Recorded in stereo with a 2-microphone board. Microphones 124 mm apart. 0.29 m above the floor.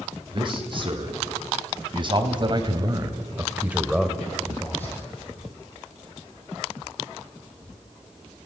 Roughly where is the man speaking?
Right.